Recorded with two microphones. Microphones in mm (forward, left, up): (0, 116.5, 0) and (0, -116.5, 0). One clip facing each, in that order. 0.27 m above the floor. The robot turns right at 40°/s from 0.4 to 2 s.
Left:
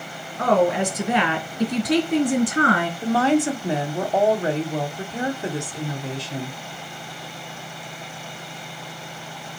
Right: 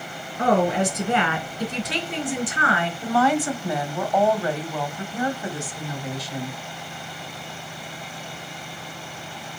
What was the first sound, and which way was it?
A woman speaking, 15° right.